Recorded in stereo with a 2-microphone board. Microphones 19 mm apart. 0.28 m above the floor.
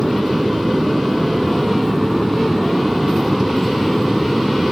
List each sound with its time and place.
0.0 s an aircraft: 35° right (ahead or behind); by 4.7 s 5° right (ahead or behind)